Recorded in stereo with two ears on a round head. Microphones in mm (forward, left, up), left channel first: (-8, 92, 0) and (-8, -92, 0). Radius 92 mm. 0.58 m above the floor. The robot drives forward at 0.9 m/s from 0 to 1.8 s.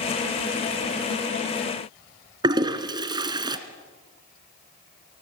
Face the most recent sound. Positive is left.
turn(degrees=-25)  # may be behind; listen again after turning